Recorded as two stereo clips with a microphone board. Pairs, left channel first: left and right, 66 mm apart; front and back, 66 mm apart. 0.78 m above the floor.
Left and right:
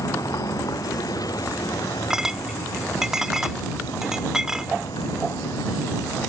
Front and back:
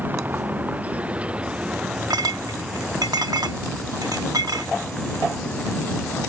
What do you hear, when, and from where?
0.0 s a vehicle: 120° left; by 6.3 s 75° left
2.1 s a clink: 170° right